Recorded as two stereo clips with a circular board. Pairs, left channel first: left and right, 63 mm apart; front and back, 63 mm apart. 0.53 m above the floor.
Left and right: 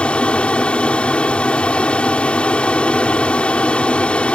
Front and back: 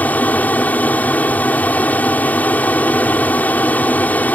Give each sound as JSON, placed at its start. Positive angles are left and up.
{"t": 0.0, "sound": "an aircraft", "azimuth_deg": 35}